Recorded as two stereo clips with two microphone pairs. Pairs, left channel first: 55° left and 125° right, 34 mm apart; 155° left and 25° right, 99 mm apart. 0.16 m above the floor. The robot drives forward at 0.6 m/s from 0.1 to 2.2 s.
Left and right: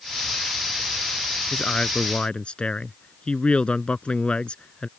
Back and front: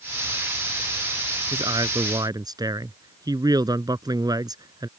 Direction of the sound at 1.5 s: 5° left.